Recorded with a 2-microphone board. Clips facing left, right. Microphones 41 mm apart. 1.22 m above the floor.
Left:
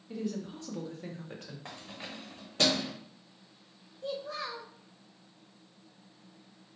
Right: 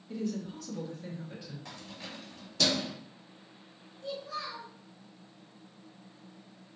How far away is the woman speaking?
About 1.2 m.